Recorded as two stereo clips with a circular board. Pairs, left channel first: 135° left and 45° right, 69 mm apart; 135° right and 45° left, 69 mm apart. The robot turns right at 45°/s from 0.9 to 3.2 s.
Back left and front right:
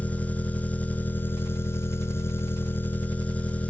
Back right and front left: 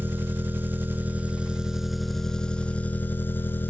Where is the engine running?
85° left, 1.3 m; by 3.7 s 170° right, 1.3 m.